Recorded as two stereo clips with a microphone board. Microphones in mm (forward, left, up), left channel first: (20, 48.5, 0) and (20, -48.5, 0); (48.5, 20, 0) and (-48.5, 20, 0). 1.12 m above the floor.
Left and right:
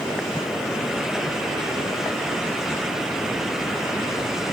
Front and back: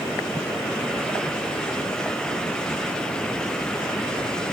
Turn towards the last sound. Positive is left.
No sound to turn to.